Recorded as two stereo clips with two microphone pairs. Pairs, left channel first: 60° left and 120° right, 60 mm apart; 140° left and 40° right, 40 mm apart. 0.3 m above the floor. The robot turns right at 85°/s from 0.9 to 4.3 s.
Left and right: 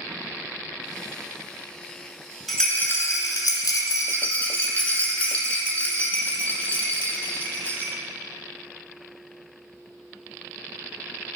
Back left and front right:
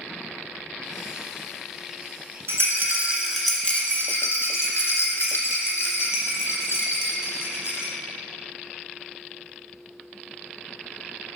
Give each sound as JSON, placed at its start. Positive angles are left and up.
{"t": 2.5, "sound": "a rattle", "azimuth_deg": -30, "distance_m": 1.3}